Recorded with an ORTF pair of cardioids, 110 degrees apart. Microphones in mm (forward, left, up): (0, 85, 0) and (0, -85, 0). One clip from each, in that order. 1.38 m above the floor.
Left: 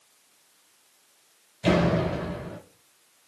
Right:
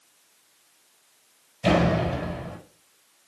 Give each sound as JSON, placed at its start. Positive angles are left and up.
{"t": 1.6, "sound": "a door slam", "azimuth_deg": -10, "distance_m": 5.5}